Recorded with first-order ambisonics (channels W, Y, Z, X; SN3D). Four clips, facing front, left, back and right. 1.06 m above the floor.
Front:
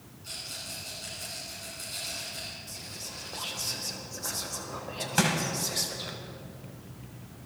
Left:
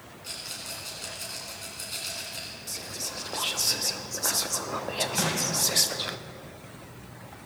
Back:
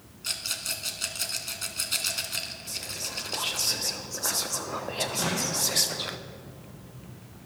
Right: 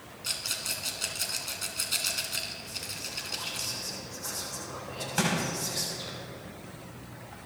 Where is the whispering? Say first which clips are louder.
Left 2 dB, back 6 dB; 125° left, 0.5 m.